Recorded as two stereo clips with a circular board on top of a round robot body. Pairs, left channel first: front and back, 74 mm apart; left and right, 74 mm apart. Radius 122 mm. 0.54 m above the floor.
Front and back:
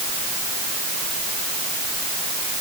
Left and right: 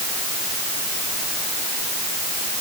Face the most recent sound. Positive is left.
No sound to turn to.